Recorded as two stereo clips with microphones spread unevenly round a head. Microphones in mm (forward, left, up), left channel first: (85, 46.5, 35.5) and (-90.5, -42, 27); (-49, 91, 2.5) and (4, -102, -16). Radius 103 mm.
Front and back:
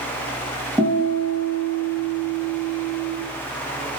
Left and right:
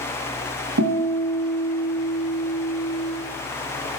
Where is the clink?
I don't hear a clink.